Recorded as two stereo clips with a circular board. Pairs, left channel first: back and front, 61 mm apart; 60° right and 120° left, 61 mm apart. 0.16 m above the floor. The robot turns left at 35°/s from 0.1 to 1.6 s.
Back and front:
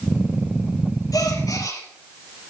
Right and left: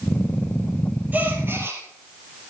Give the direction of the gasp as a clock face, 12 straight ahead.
6 o'clock.